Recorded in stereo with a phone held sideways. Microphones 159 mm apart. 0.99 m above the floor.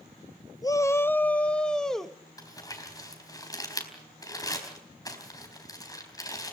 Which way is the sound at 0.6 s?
20° left (ahead or behind).